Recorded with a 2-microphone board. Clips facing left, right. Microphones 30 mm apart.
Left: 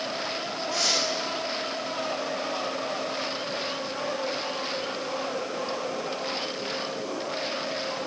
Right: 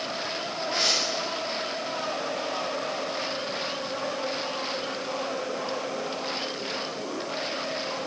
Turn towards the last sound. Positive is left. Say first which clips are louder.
# right 1 dB
turn(degrees=-45)  # may be behind; listen again after turning